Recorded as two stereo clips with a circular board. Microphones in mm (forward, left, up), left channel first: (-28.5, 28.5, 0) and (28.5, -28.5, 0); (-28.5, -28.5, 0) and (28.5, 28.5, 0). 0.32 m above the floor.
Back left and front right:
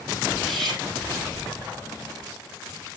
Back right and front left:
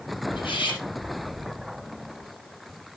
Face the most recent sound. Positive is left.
turn(degrees=-140)